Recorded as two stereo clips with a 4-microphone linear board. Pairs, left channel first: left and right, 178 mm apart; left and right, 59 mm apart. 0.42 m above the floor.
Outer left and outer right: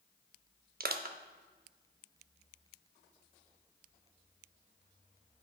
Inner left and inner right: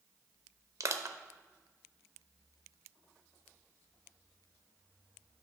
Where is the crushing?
55° right (ahead or behind), 0.6 m.